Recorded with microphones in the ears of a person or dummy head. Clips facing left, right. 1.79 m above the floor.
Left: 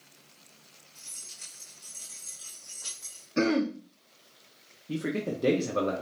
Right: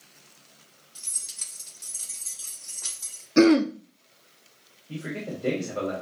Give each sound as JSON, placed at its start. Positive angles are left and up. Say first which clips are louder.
{"t": 0.9, "sound": "keys jangling", "louder": "right 1 dB", "side_deg": -65, "distance_m": 1.6}
{"t": 3.4, "sound": "throat clearing", "louder": "right 8 dB", "side_deg": -60, "distance_m": 0.5}
{"t": 4.9, "sound": "a man speaking", "louder": "left 3 dB", "side_deg": 60, "distance_m": 0.8}